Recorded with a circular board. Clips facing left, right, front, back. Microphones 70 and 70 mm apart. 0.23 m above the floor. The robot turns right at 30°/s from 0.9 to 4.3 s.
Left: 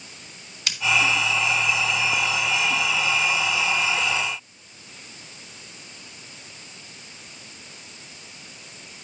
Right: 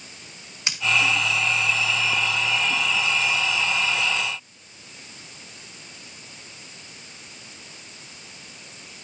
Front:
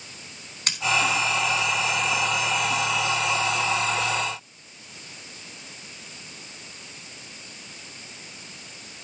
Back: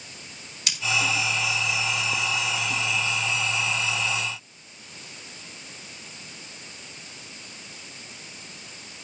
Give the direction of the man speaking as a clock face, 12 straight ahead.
I don't hear a man speaking.